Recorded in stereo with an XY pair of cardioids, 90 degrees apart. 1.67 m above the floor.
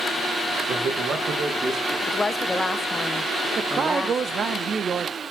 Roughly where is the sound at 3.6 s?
Ahead right.